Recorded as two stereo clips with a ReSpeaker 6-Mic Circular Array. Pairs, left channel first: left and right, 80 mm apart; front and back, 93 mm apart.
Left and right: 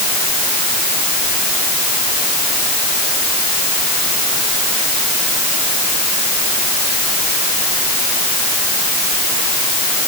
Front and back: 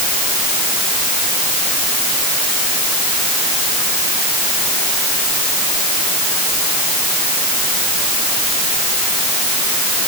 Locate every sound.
Only background noise.